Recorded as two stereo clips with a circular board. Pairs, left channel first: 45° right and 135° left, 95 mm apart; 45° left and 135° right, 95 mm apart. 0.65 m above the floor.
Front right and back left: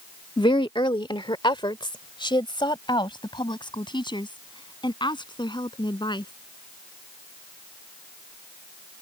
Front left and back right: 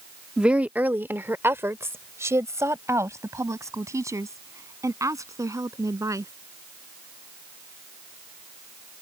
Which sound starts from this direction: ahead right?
A woman speaking, at 0.4 s.